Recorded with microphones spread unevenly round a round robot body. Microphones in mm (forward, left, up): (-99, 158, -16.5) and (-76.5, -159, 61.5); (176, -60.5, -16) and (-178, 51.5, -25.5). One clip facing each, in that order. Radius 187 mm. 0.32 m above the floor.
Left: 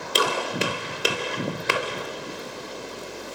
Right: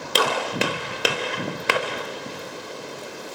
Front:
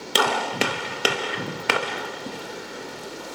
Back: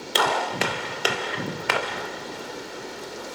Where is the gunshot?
55° right, 0.8 m.